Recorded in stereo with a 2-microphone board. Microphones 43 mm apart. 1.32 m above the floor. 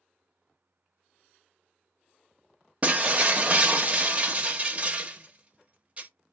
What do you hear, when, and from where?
2.8 s breaking glass: 30° right (ahead or behind), 0.7 m